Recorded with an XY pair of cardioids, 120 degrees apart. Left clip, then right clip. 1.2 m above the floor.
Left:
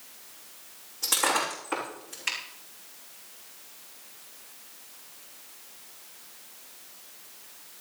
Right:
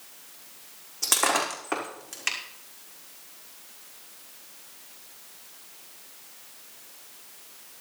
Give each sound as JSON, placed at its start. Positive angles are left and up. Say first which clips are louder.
{"t": 1.0, "sound": "breaking glass", "louder": "right 2 dB", "azimuth_deg": -50, "distance_m": 5.5}